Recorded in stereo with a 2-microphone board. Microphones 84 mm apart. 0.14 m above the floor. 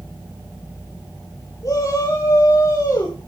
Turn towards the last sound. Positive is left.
turn(degrees=35)  # may be behind; listen again after turning